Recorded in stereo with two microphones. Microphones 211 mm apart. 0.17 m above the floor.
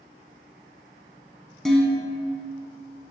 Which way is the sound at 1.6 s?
Centre (ahead or behind).